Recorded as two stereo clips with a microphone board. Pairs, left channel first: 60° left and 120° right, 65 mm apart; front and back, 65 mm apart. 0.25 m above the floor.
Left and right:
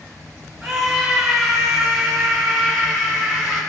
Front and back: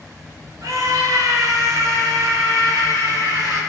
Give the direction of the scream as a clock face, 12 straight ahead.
7 o'clock.